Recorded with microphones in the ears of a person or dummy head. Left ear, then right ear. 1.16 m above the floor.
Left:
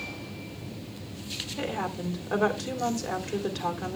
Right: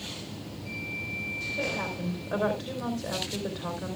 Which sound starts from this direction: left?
A woman speaking, at 1.6 s.